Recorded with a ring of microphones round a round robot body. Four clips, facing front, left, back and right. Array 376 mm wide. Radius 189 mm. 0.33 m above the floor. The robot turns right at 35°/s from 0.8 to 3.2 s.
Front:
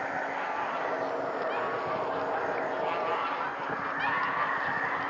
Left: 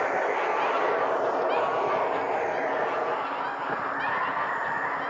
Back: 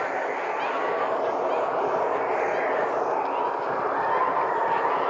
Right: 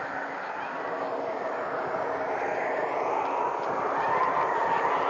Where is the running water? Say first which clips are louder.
Left 8 dB, back 5 dB; 120° left; by 5.1 s 155° right.